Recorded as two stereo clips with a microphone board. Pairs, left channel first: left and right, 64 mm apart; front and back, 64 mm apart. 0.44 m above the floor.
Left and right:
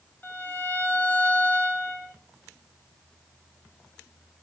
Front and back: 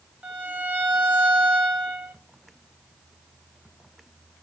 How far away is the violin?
About 1.5 m.